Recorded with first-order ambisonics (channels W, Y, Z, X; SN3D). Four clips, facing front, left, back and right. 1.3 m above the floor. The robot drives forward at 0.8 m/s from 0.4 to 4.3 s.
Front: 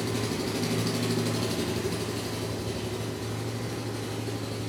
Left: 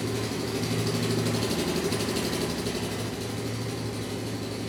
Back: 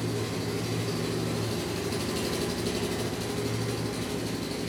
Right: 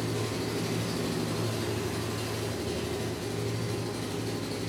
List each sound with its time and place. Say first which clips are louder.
0.0 s an engine running: left 2 dB, front 2 dB; 35° left, 1.4 m; by 4.7 s 160° left, 2 m